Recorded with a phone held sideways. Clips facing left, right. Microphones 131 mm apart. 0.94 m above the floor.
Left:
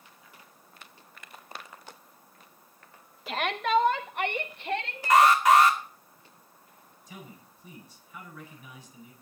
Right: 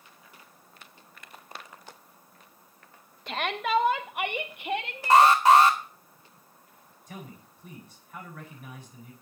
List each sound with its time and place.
3.3 s a shout: 5° left (ahead or behind), 0.8 m; by 5.3 s 15° right (ahead or behind), 2 m
5.1 s an alarm: 30° right (ahead or behind), 2 m
7.1 s a man speaking: 55° right (ahead or behind), 8.5 m